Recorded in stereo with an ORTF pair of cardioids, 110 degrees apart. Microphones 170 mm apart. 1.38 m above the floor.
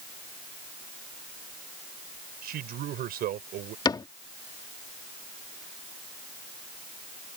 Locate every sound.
2.4 s a man speaking: 65° right
3.9 s a cupboard door: 25° left